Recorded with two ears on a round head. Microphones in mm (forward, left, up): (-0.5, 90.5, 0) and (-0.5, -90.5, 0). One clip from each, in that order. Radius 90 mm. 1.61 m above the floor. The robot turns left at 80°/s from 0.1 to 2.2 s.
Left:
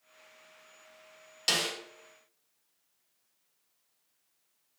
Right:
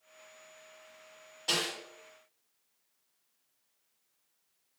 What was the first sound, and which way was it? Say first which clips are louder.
A snare drum: left 2 dB; 75° left (ahead or behind).